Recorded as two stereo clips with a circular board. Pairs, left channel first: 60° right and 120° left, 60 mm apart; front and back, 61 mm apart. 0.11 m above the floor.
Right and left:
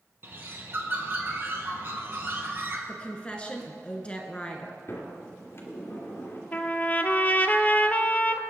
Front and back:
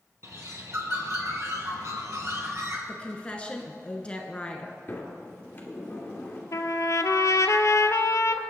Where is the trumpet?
5° right, 0.7 m.